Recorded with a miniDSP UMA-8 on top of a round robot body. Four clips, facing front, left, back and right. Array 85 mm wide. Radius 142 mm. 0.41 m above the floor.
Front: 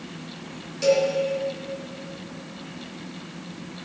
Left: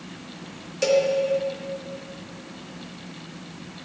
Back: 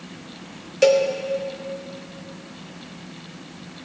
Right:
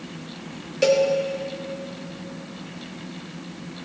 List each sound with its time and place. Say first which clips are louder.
0.8 s a cowbell: right 2 dB, back 4 dB; 160° right, 1.0 m